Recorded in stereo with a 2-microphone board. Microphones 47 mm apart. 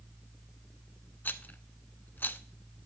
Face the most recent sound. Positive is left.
turn(degrees=40)  # may be behind; listen again after turning